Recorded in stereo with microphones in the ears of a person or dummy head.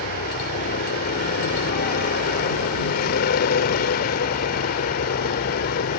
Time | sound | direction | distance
0.0 | a vehicle | 50° left (ahead or behind) | ?